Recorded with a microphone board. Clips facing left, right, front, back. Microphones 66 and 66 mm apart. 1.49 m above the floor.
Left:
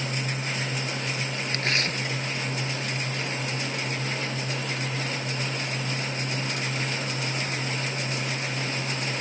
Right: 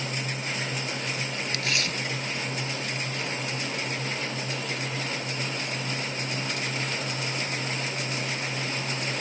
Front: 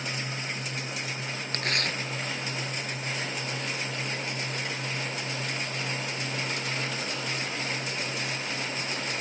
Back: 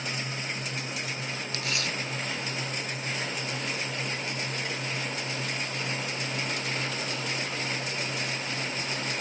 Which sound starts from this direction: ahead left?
Tearing paper, at 1.5 s.